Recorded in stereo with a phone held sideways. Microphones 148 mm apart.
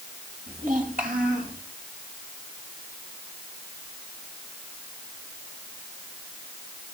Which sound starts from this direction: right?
A child speaking, at 0.5 s.